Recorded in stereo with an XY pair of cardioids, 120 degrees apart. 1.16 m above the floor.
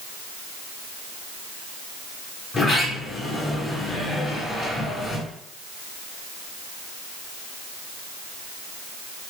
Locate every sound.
2.5 s a sliding door: 35° left, 1.7 m